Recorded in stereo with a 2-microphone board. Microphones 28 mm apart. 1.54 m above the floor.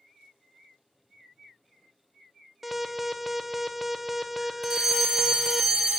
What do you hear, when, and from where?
2.6 s an alarm: centre (ahead or behind), 0.5 m
4.6 s a fire alarm: 15° right (ahead or behind), 1.8 m